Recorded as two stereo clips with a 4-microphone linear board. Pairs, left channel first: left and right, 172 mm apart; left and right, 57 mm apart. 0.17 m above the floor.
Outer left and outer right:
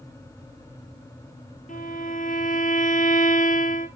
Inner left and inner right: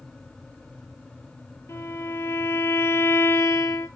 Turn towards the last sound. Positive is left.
turn(degrees=50)  # may be behind; listen again after turning